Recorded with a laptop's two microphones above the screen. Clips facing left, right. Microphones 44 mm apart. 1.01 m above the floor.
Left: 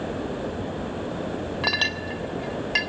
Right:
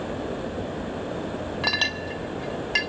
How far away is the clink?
About 0.8 m.